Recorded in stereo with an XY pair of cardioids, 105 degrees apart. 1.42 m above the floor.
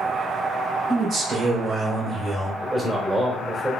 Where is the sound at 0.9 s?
65° right, 1.8 m; by 2.5 s 25° right, 1.3 m.